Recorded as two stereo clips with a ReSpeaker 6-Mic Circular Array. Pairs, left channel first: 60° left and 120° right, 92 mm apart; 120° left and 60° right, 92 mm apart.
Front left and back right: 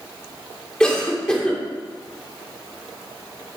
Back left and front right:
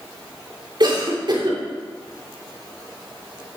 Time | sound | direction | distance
0.8 | a cough | 20° right | 3.5 m